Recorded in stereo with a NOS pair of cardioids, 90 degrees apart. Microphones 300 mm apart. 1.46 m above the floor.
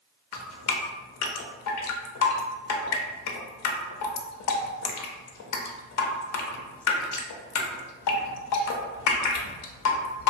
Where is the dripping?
65° left, 0.5 m.